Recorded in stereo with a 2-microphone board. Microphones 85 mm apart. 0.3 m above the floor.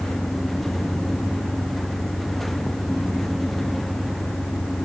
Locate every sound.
0.0 s an engine running: 45° left (ahead or behind)